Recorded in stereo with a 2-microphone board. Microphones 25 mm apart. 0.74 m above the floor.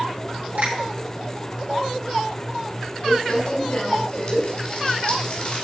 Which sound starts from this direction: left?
Crumpling, at 3.0 s.